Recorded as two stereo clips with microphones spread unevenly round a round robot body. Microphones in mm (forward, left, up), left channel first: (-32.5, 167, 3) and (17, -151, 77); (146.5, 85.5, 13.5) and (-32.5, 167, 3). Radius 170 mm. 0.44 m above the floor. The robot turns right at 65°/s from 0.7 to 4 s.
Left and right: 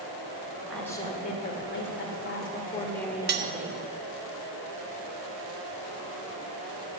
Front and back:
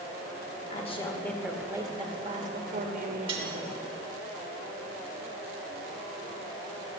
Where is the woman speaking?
20° left, 1.4 m; by 3.8 s 140° right, 1.4 m.